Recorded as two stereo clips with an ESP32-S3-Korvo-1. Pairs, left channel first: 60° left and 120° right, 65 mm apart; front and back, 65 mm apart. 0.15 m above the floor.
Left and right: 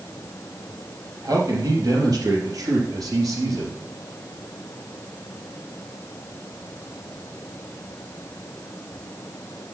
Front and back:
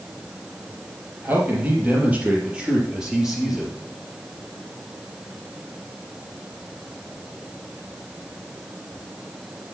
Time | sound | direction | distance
1.2 | a man speaking | 125° right | 3 m